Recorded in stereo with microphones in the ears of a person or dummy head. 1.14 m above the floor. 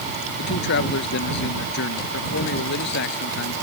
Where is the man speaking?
65° left (ahead or behind).